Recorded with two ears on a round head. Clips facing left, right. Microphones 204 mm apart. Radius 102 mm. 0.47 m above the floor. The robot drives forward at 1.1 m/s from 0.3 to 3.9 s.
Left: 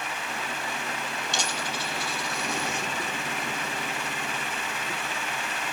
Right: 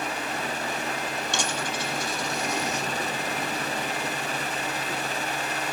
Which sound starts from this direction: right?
A dropped coin, at 1.3 s.